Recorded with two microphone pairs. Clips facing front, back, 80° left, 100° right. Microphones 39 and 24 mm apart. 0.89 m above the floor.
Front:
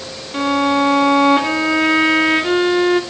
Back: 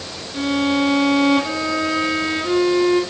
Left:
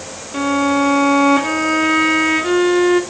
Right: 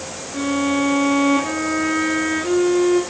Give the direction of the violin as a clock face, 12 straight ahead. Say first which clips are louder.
Front 3 dB, left 4 dB; 11 o'clock.